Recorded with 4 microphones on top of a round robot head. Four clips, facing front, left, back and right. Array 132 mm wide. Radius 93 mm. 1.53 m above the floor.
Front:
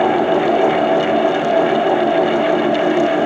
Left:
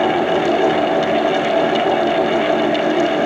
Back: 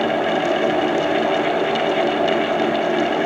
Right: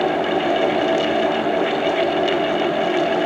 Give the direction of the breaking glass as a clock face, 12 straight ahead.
No breaking glass in this recording.